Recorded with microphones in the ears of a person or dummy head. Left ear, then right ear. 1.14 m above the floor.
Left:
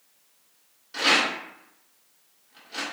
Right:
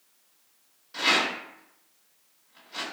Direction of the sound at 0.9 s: 15° left (ahead or behind).